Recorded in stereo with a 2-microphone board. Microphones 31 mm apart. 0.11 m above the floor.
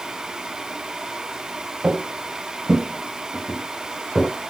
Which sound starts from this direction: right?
Footsteps, at 1.8 s.